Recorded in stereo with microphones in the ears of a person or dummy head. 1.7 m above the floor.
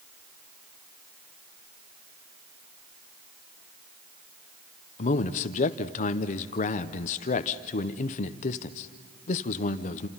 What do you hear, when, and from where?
5.0 s a man speaking: 45° left (ahead or behind), 0.8 m